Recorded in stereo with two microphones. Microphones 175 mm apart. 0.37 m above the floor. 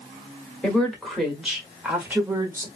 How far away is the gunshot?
I don't hear a gunshot.